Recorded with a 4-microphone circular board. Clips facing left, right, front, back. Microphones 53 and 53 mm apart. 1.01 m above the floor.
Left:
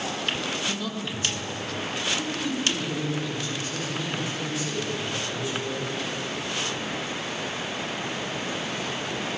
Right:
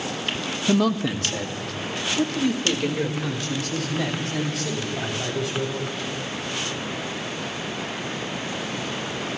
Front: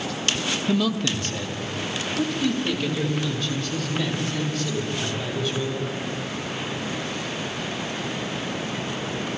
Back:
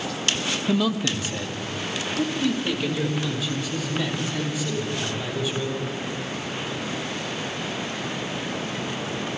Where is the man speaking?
100° right, 1.3 m; by 5.9 s 95° right, 8 m.